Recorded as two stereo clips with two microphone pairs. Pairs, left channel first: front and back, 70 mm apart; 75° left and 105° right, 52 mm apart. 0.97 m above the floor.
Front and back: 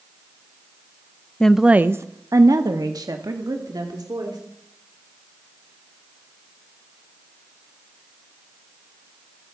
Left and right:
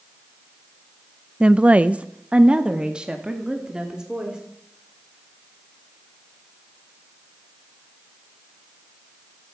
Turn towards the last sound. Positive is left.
turn(degrees=180)